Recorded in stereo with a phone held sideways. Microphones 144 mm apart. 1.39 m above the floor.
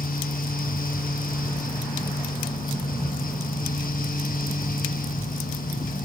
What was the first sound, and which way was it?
A fan, 80° left.